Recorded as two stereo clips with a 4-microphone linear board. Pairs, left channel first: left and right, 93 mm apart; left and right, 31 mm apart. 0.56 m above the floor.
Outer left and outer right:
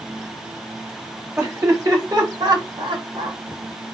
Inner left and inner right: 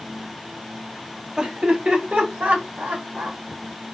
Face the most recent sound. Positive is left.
turn(degrees=-65)  # may be behind; listen again after turning